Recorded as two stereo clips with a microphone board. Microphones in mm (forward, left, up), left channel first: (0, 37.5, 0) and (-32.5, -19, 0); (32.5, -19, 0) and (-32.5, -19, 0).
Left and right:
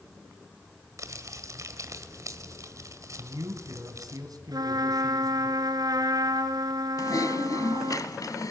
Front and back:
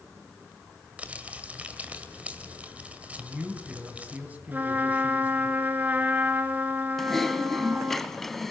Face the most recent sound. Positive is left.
turn(degrees=85)